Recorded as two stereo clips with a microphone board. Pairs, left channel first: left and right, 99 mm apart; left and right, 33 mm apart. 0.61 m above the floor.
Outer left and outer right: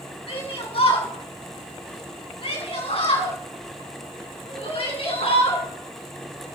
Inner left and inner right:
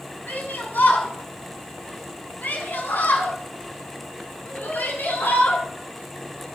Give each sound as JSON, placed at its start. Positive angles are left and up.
{"t": 0.3, "sound": "a shout", "side_deg": 70, "distance_m": 6.5}